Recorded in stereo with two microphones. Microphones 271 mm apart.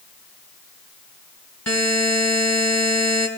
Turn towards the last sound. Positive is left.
turn(degrees=65)  # may be behind; listen again after turning